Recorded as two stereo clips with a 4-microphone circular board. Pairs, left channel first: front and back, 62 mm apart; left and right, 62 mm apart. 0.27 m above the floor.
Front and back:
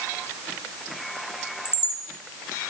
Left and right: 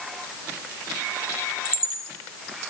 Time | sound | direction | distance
1.6 | a chime | 105° right | 1.9 m